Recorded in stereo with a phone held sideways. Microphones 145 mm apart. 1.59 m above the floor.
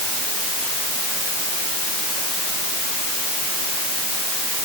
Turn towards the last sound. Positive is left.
No sound to turn to.